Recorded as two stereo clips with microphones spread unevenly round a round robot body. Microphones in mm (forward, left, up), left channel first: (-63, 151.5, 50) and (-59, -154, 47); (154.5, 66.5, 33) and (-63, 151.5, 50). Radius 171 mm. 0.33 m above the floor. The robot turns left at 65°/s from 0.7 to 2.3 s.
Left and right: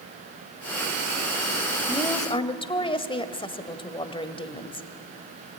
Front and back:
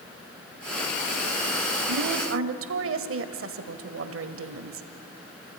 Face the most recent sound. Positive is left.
turn(degrees=160)